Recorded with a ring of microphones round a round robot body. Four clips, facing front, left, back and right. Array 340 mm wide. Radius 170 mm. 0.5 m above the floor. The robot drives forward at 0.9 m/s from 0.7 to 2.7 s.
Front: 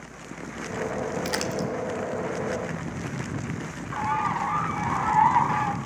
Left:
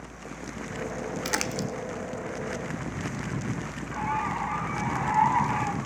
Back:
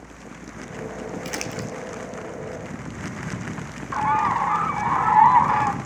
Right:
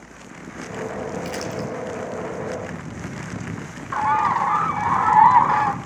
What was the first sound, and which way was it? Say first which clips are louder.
Crumpling: right 3 dB, front 3 dB; 65° left.